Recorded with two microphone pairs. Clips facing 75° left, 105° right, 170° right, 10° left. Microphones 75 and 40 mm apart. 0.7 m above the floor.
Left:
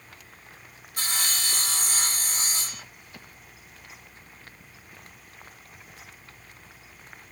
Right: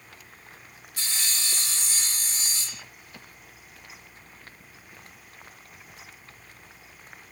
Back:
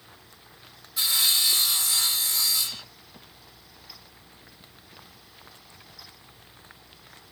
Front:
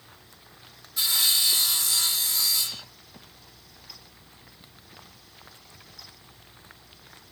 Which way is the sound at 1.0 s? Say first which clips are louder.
Left 4 dB, even; 105° left.